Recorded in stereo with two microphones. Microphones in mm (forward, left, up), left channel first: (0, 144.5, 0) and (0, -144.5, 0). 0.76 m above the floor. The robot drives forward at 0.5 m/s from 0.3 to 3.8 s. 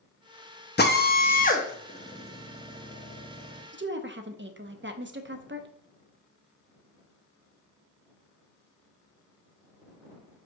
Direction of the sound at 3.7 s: 35° right (ahead or behind).